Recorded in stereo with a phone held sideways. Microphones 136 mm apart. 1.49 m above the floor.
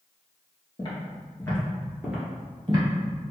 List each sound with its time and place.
0.8 s footsteps: 40° left (ahead or behind), 1.8 m; by 2.9 s 30° right (ahead or behind), 1.7 m